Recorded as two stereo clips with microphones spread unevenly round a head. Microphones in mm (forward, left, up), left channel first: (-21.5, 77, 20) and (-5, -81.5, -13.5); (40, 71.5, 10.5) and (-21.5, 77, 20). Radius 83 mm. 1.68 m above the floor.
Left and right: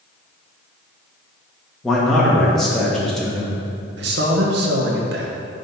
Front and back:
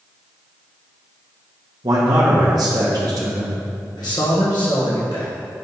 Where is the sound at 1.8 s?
Straight behind, 2 m.